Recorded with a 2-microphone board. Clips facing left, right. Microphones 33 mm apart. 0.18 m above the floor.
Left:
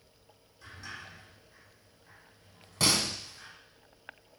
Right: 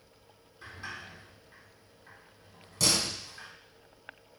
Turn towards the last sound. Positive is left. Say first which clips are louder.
# left 1 dB
turn(degrees=30)  # may be behind; listen again after turning